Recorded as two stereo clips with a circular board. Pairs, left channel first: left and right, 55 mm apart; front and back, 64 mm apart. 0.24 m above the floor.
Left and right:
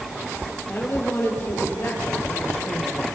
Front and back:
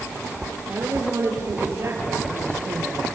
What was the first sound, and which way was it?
A woman speaking, 135° left.